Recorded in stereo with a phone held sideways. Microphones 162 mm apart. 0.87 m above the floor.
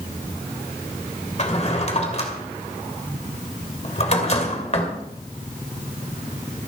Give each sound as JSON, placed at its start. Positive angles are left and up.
{"t": 1.4, "sound": "a drawer", "side_deg": 45, "distance_m": 2.5}